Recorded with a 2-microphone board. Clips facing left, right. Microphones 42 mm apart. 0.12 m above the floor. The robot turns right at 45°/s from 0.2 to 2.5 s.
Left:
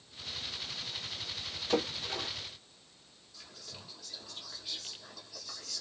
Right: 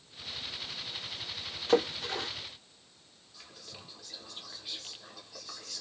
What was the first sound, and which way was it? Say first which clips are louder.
A splash: right 5 dB; 85° right.